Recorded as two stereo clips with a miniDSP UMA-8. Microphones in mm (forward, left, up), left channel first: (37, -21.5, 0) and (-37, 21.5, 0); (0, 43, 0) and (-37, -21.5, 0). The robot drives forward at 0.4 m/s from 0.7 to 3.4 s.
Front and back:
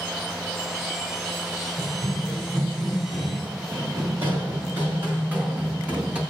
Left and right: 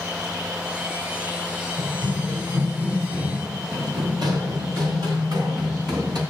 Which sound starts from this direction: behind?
Running footsteps, at 1.8 s.